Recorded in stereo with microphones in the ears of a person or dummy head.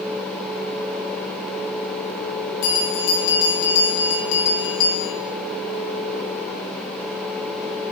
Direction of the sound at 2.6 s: 65° left (ahead or behind).